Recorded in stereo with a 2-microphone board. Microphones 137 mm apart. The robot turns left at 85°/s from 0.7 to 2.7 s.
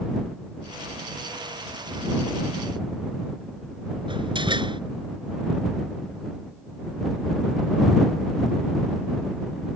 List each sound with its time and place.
4.1 s a door slam: 35° right (ahead or behind)